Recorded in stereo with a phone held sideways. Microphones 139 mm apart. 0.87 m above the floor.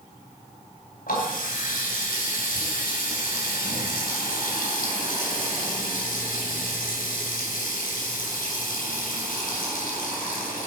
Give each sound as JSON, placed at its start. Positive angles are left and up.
{"t": 1.1, "sound": "a running tap", "side_deg": 90, "distance_m": 3.5}